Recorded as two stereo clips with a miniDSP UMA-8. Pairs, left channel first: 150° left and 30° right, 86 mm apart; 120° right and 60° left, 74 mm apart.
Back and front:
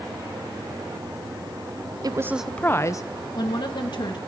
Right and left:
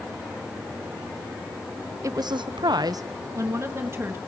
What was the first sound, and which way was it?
A woman speaking, 15° left.